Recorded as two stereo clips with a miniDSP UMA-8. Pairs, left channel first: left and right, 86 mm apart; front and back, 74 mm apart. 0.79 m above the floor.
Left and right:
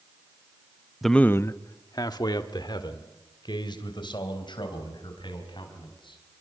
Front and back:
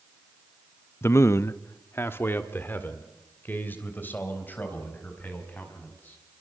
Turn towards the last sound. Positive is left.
turn(degrees=65)